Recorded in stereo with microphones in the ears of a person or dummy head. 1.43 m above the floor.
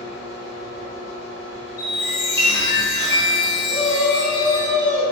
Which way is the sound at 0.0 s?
20° right (ahead or behind).